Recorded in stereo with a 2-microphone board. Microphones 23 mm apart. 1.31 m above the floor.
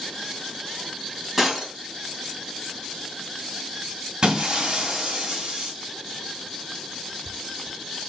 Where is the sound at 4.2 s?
30° right (ahead or behind), 2.5 m.